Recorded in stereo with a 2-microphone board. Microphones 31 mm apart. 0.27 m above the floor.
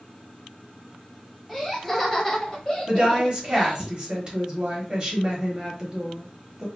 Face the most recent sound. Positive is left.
turn(degrees=-25)  # may be behind; listen again after turning